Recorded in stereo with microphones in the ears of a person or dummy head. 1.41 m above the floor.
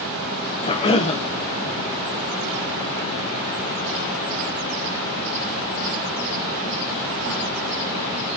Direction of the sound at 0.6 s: 20° left (ahead or behind).